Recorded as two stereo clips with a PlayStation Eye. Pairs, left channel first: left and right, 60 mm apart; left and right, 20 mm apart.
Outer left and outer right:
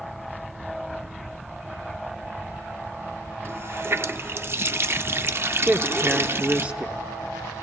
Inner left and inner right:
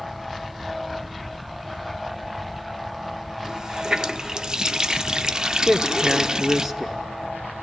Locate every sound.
3.5 s a running tap: 40° right (ahead or behind), 0.5 m
5.7 s a man speaking: 20° right (ahead or behind), 1.3 m